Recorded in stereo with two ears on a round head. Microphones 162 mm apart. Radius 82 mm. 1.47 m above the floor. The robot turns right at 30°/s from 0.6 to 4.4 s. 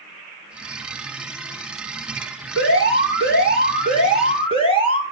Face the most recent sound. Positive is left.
turn(degrees=145)